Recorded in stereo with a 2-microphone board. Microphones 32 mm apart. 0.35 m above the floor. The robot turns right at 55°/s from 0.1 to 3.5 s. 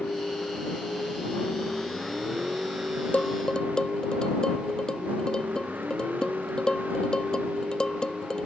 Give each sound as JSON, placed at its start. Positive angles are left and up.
{"t": 0.0, "sound": "a vehicle", "azimuth_deg": 65}
{"t": 3.1, "sound": "dishes clattering", "side_deg": 50}